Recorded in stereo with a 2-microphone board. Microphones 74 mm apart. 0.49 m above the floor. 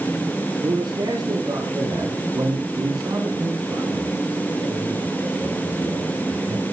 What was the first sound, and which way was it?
A man speaking, 70° right (ahead or behind).